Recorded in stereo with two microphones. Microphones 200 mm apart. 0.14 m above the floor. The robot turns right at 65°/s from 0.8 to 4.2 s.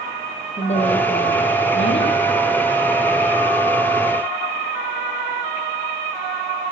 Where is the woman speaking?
35° left, 6 m; by 2.2 s 125° left, 6 m.